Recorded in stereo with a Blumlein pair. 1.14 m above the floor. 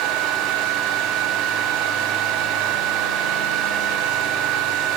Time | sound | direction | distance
0.0 | a fan | 40° right | 1.8 m